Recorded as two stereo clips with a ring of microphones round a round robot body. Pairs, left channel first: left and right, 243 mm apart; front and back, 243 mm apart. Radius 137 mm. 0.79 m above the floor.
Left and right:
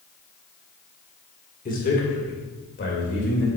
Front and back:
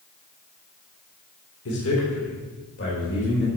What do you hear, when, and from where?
1.6 s a man speaking: 35° left, 1.9 m; by 3.5 s 50° left, 3 m